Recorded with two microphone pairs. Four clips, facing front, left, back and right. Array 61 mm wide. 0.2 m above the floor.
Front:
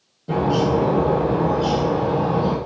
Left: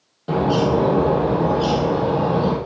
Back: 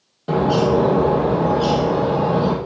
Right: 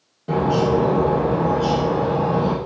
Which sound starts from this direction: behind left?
A bird, at 0.3 s.